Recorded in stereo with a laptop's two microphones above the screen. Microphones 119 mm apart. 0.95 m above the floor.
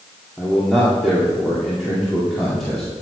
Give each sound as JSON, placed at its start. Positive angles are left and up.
{"t": 0.4, "sound": "a man speaking", "side_deg": 5, "distance_m": 2.5}